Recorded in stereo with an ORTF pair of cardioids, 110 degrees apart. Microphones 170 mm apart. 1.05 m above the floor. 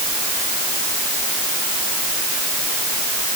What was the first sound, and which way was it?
Only background noise.